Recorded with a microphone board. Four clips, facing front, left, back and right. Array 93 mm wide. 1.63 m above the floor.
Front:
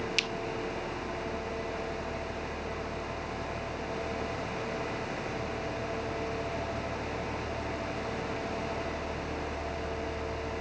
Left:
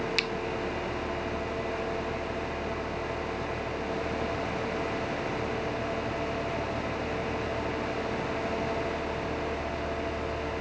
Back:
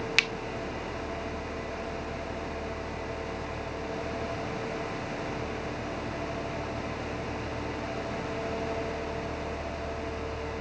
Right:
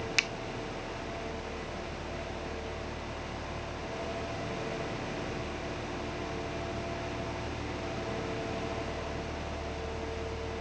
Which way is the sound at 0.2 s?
165° right.